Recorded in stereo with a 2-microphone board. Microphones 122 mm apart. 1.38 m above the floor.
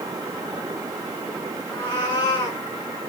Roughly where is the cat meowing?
Left.